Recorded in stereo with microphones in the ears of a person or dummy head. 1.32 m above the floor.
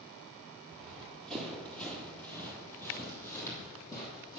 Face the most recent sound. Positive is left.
turn(degrees=20)  # may be behind; listen again after turning